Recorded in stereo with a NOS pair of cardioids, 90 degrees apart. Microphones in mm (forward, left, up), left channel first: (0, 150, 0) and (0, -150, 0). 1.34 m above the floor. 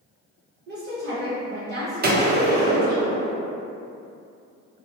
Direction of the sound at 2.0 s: 30° right.